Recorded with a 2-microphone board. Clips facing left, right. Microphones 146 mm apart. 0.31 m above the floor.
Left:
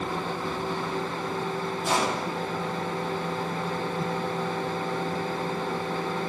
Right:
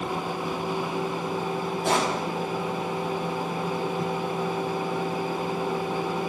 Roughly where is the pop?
Right.